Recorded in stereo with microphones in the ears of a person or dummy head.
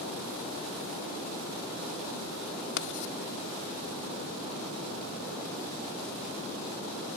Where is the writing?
65° left (ahead or behind).